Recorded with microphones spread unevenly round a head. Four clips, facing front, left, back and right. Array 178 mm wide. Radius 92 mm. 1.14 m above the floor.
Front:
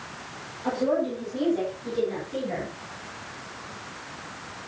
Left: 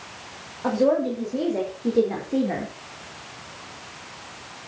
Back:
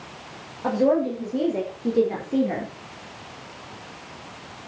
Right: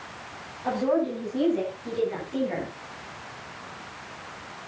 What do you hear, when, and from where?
0.6 s a woman speaking: 130° left, 6.5 m; by 2.7 s 135° left, 4 m